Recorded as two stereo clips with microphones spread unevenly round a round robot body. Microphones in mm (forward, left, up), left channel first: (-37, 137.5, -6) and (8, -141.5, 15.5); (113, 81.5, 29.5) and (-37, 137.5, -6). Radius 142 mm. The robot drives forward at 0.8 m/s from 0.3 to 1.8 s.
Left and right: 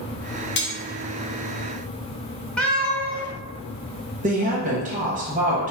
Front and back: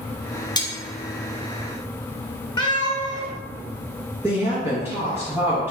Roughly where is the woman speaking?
Behind right.